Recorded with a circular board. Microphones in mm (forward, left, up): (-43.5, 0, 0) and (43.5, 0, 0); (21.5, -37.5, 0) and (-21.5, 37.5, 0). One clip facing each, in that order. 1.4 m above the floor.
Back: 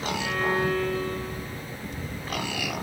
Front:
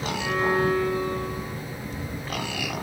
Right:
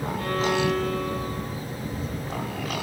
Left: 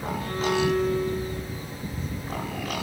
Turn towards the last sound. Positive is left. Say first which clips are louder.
# front 4 dB, right 1 dB
turn(degrees=-85)